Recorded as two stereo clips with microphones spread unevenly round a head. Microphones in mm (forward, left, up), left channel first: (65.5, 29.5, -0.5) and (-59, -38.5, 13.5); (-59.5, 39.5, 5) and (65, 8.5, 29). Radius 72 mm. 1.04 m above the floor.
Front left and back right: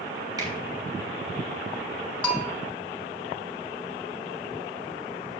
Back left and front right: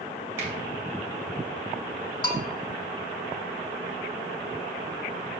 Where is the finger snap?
90° right, 6.5 m.